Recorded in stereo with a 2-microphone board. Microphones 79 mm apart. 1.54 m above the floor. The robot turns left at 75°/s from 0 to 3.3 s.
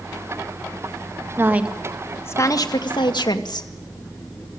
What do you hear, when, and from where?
1.4 s a woman speaking: 145° right, 2 m; by 3.7 s 70° left, 2 m